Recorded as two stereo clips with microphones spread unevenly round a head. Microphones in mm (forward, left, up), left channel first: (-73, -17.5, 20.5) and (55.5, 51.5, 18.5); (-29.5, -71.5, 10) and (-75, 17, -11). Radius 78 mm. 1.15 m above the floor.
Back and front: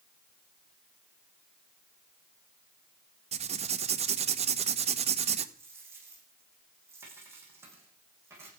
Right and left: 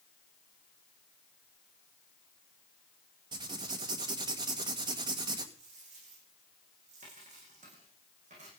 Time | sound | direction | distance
3.3 | writing | 70° left | 1.5 m
5.5 | a dropped coin | 100° left | 9.5 m